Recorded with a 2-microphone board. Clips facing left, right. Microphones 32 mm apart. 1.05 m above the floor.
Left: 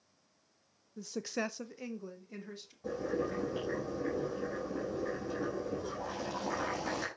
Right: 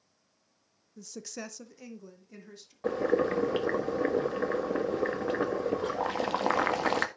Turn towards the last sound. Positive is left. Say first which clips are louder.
# right 8 dB
turn(degrees=-50)  # may be behind; listen again after turning